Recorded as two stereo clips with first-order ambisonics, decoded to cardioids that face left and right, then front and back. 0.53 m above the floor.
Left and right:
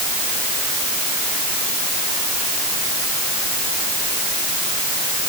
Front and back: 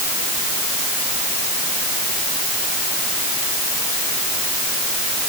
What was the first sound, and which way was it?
Only background noise.